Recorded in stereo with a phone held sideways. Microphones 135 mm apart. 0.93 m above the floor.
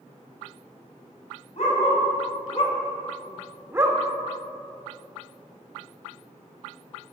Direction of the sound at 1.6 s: 60° left (ahead or behind).